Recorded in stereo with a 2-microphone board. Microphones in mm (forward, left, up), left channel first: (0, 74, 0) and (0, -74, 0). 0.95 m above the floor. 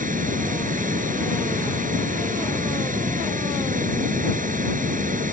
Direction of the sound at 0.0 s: 65° right (ahead or behind).